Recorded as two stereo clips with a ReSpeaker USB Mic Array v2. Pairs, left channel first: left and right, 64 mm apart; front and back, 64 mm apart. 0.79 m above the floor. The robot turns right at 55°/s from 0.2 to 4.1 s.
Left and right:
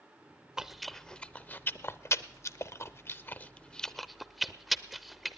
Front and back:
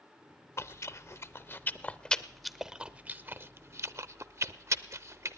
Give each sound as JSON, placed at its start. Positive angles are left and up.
{"t": 0.6, "sound": "chewing", "azimuth_deg": -15, "distance_m": 0.6}